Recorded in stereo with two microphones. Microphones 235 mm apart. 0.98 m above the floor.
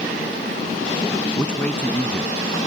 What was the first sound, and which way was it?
A man speaking, 5° left (ahead or behind).